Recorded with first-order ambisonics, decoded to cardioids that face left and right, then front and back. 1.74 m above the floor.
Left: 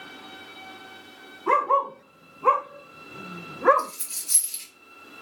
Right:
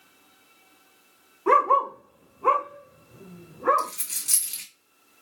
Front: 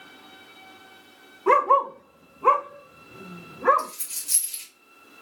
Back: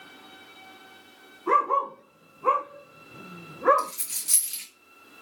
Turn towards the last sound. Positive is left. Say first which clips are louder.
# right 1 dB, back 2 dB
turn(degrees=-130)